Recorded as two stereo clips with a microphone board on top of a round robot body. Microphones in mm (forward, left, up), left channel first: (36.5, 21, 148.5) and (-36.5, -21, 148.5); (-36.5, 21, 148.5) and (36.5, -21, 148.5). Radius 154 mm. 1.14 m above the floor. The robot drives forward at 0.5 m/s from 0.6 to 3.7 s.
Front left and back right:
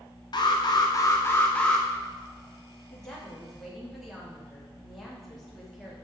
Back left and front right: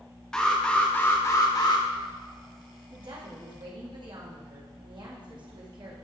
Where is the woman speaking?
50° right, 2.5 m; by 5.9 s 60° right, 2.5 m.